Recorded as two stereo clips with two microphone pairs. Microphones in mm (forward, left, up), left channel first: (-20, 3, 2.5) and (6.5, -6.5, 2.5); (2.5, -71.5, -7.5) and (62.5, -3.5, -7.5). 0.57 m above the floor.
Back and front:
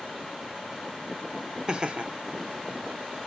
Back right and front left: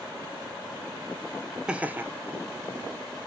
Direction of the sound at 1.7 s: 25° right.